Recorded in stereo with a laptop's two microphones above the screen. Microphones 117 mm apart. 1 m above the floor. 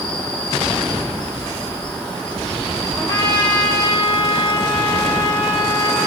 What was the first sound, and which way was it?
An insect, 10° left (ahead or behind).